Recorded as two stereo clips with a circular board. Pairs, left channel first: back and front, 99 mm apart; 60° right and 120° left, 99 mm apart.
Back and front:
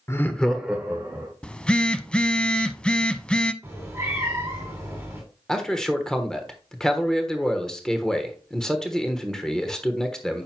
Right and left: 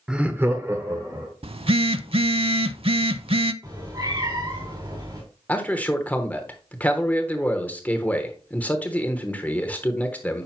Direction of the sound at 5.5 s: 105° right.